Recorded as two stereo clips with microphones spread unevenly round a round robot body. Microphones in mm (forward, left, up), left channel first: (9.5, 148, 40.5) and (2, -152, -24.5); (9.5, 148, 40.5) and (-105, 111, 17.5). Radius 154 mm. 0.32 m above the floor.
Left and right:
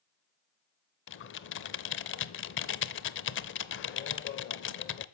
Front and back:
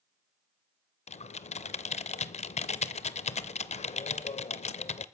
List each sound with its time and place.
1.1 s typing on a keyboard: 35° left, 0.7 m